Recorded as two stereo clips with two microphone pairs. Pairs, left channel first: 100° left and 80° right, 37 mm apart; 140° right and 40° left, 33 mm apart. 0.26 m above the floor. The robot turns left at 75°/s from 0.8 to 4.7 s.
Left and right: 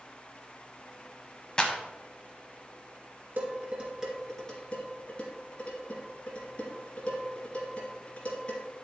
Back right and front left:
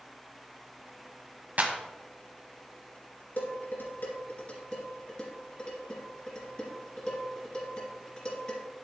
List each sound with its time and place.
1.6 s a clap: 40° left, 1.3 m; by 1.7 s 25° left, 1.3 m
3.4 s dishes clattering: 100° right, 2.5 m; by 8.7 s 155° left, 2.5 m